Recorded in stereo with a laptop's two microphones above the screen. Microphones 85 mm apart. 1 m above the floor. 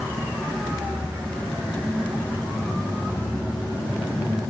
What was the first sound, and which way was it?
Only background noise.